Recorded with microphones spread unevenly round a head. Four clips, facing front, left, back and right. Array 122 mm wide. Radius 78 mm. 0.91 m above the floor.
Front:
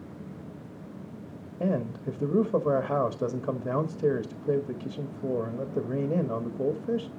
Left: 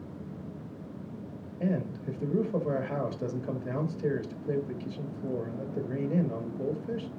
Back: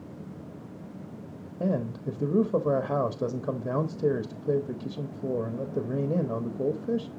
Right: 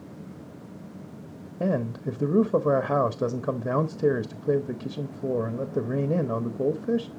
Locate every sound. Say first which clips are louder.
1.6 s a man speaking: right 5 dB, even; 50° right, 1.2 m